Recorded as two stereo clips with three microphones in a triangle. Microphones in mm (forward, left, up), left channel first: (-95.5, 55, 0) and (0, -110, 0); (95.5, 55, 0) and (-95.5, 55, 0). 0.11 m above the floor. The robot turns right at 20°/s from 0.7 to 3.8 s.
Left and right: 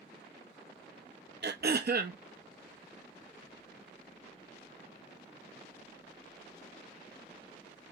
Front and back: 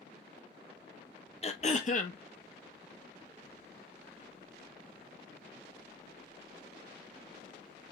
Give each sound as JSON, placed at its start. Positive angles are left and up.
{"t": 1.4, "sound": "throat clearing", "azimuth_deg": -50, "distance_m": 0.6}